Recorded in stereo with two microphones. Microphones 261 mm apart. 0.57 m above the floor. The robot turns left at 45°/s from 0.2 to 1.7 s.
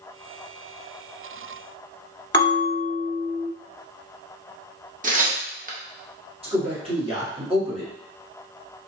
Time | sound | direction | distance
2.3 | a bell | 20° left (ahead or behind) | 1.2 m
5.0 | tearing paper | 35° right (ahead or behind) | 0.6 m
6.4 | a man speaking | 20° right (ahead or behind) | 1.1 m